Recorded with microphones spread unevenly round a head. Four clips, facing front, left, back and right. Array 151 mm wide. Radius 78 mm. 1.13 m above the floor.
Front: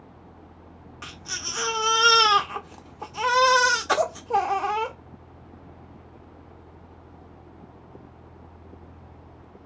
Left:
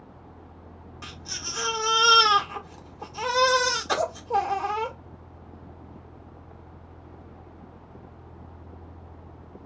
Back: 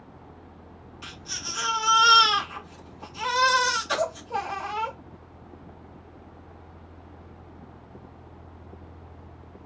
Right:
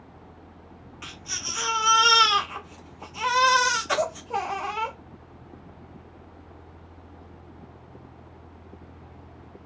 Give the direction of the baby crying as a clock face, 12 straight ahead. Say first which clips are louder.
Right 1 dB, front 3 dB; 11 o'clock.